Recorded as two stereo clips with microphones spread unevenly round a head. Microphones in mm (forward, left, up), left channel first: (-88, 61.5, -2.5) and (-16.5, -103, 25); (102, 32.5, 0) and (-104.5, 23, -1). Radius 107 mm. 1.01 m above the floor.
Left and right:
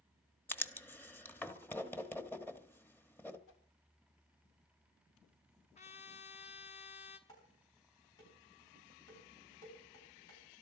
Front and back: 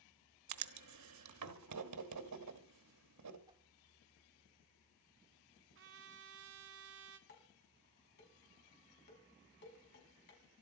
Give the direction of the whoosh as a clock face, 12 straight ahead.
8 o'clock.